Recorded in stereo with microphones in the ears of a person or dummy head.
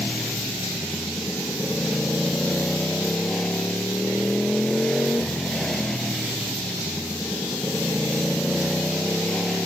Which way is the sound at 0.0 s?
5° left (ahead or behind).